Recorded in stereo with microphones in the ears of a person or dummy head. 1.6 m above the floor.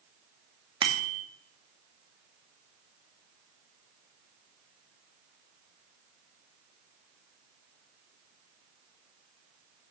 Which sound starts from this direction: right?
A bicycle bell, at 0.8 s.